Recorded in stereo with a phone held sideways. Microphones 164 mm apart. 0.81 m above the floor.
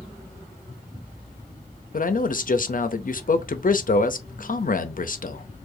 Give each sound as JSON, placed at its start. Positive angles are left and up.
{"t": 1.9, "sound": "a man speaking", "side_deg": 55, "distance_m": 0.6}